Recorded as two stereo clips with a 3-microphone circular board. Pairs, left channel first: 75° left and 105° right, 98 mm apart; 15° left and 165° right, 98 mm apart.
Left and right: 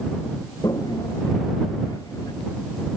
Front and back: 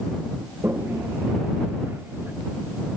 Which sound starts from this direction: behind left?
A toilet flushing, at 0.6 s.